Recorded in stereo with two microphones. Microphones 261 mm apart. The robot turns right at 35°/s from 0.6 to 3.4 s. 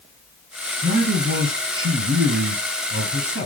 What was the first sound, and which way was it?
A man speaking, 155° right.